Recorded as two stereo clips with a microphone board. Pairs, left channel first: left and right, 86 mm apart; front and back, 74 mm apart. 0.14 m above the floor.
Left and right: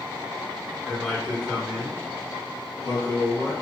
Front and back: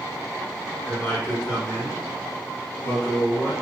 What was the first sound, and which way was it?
A man speaking, straight ahead.